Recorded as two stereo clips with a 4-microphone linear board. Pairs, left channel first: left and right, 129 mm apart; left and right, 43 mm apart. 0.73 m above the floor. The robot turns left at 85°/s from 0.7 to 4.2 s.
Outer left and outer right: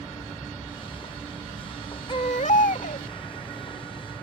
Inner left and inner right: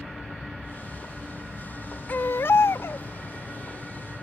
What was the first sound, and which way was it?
An aircraft, 5° right (ahead or behind).